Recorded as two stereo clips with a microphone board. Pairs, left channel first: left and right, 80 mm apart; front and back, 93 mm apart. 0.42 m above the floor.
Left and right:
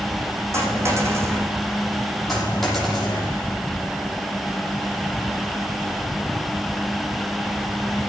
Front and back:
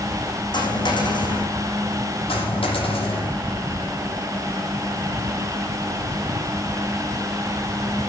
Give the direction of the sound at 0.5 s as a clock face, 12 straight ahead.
1 o'clock.